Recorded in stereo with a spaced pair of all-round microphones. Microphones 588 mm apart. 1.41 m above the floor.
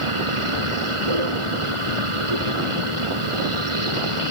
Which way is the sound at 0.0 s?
55° right (ahead or behind).